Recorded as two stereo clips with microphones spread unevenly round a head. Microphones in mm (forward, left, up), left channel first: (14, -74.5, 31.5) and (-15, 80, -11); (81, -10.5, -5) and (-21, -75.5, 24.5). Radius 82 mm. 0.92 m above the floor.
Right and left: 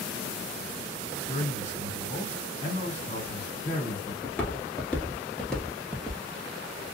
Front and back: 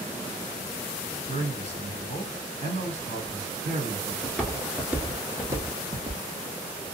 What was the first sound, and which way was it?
A man speaking, 130° right.